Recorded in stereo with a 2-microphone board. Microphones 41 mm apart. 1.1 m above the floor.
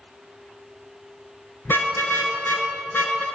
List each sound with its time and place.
1.6 s a car horn: 55° left (ahead or behind), 7.5 m; by 3.2 s 50° left (ahead or behind), 6.5 m